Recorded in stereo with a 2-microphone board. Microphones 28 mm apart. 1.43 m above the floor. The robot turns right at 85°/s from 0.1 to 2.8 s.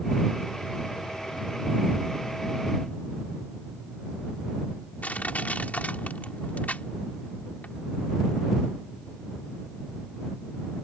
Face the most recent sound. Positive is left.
turn(degrees=75)  # may be behind; listen again after turning